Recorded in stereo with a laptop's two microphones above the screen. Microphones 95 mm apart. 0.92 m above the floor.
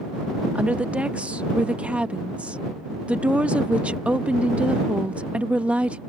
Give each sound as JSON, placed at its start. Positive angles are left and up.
{"t": 0.6, "sound": "a woman speaking", "side_deg": -15}